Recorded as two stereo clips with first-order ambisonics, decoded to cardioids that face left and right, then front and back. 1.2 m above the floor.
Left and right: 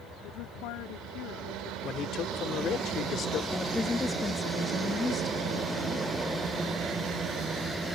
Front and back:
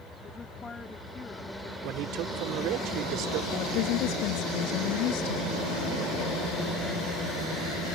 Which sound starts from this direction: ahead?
A woman speaking, at 3.5 s.